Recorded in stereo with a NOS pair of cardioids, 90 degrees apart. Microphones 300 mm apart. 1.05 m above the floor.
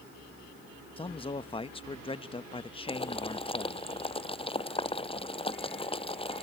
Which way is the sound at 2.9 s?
20° left.